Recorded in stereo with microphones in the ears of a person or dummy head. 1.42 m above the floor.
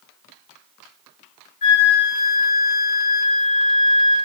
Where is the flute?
50° left (ahead or behind), 2 m.